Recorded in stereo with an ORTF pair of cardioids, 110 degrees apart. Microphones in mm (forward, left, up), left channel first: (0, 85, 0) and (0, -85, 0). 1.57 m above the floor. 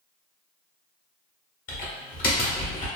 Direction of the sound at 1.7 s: 55° left.